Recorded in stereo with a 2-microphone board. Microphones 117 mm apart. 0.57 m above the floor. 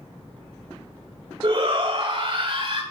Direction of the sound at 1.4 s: 50° right (ahead or behind).